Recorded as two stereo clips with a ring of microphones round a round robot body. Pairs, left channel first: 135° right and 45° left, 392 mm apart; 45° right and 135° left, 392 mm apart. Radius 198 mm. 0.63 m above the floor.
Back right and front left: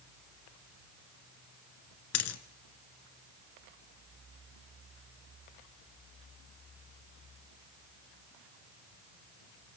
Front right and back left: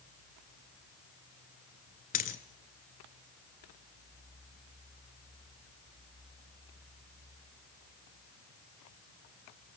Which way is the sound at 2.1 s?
105° right.